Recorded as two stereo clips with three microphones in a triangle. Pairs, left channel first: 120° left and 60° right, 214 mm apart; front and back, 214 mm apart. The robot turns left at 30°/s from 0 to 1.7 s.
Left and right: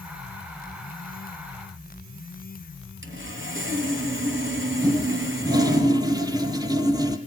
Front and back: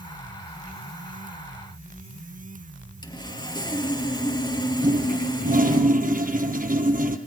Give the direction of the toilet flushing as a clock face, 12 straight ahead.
4 o'clock.